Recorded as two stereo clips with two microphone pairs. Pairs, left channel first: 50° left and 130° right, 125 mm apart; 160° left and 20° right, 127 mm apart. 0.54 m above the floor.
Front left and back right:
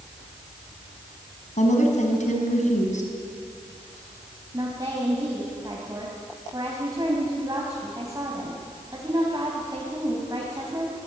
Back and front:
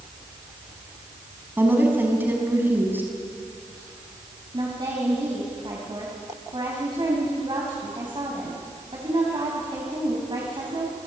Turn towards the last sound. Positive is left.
turn(degrees=-70)